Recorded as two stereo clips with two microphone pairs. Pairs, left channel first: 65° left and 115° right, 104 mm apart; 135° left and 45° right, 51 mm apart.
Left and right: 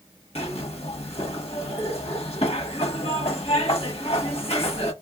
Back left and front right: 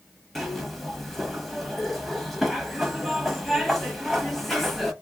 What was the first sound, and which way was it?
A zipper, 50° left.